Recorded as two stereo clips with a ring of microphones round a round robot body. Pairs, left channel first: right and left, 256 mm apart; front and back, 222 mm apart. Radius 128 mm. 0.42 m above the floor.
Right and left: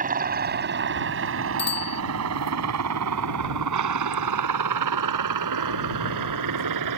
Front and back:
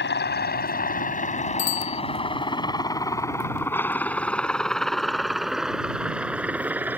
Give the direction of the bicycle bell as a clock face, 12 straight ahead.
1 o'clock.